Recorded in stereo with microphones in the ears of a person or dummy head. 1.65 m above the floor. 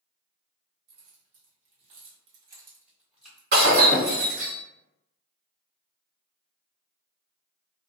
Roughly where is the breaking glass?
Right.